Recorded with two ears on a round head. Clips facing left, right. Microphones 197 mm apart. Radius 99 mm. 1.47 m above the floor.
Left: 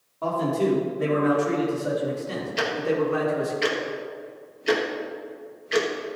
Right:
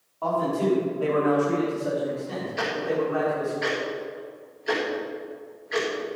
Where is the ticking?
40° left (ahead or behind), 1.8 m.